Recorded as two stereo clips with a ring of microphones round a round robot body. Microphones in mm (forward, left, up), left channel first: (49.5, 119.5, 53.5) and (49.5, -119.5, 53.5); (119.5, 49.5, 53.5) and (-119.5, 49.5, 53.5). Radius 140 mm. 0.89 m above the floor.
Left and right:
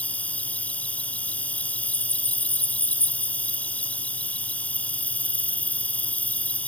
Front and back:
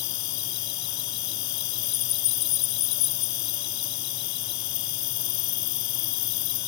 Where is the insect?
5° left.